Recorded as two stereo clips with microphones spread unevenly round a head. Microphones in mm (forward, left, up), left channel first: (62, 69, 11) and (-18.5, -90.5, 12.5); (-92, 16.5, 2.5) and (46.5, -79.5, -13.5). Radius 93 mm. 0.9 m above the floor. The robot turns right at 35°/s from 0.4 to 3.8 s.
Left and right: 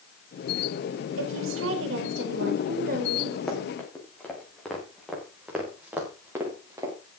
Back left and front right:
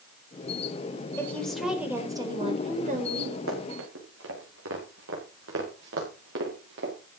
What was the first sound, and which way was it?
A woman speaking, 140° right.